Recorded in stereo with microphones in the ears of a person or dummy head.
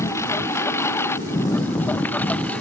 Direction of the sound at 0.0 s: 10° left (ahead or behind).